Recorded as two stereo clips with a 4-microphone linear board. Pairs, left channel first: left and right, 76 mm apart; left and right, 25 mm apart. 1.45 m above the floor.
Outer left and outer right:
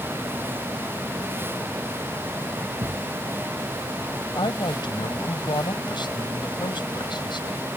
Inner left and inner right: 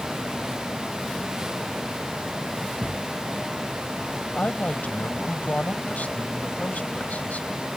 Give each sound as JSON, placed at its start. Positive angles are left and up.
{"t": 2.8, "sound": "a thud", "side_deg": -70}
{"t": 4.3, "sound": "a woman speaking", "side_deg": 75}